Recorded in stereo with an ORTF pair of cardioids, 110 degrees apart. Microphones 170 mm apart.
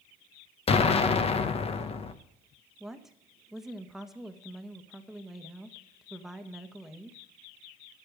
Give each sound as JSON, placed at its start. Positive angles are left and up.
{"t": 0.7, "sound": "an explosion", "azimuth_deg": 35, "distance_m": 1.1}
{"t": 2.8, "sound": "a woman speaking", "azimuth_deg": 0, "distance_m": 1.4}